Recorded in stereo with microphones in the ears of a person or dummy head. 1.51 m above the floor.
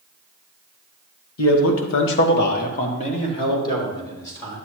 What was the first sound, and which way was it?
A man speaking, 85° left.